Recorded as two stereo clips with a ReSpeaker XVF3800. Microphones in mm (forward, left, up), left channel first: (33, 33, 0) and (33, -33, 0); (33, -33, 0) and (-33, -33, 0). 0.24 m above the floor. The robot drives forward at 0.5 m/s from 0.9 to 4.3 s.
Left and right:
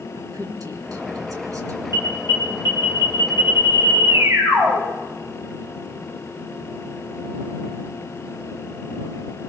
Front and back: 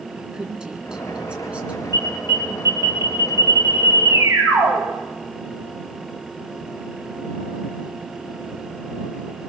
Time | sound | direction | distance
0.2 | a woman speaking | 100° right | 3 m
1.9 | an alarm | 130° right | 7 m